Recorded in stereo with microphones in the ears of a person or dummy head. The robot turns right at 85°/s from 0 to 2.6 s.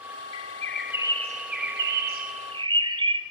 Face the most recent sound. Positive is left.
turn(degrees=-30)